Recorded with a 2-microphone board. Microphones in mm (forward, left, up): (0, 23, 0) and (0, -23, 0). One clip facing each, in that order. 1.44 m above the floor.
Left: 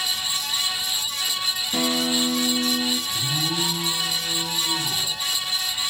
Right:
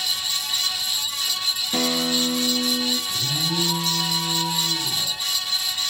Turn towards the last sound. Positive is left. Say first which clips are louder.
# even
turn(degrees=-30)  # may be behind; listen again after turning